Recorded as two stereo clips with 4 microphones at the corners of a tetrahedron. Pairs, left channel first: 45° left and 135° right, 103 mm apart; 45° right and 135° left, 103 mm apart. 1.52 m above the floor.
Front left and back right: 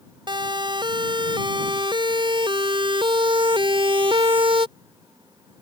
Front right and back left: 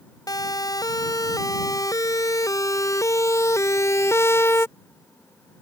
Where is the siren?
95° right; by 4.7 s 110° right.